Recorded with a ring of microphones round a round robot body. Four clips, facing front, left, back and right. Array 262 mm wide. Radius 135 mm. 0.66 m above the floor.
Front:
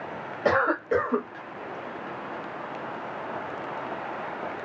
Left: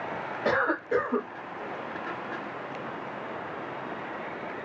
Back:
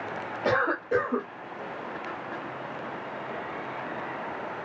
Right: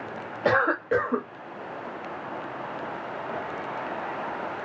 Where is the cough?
55° right, 1.1 m.